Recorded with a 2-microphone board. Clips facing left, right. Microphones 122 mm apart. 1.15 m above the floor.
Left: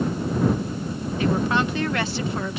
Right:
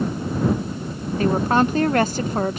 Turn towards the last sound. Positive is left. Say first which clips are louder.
# right 4 dB
turn(degrees=-40)  # may be behind; listen again after turning